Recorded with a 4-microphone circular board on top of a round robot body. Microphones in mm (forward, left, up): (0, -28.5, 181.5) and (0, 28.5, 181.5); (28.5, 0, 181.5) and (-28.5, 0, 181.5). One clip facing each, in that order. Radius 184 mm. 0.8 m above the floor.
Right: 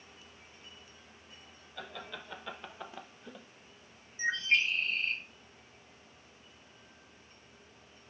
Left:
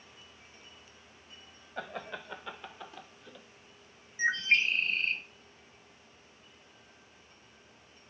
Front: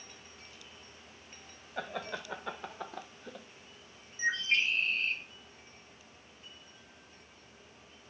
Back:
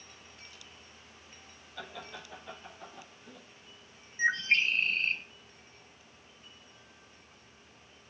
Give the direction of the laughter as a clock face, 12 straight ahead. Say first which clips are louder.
Left 4 dB, front 6 dB; 10 o'clock.